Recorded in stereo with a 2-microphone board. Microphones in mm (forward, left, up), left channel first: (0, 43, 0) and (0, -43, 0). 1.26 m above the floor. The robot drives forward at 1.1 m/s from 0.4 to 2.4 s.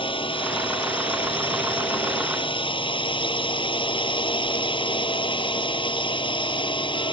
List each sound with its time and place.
0.0 s a drone: 85° left; by 7.1 s 75° left (ahead or behind)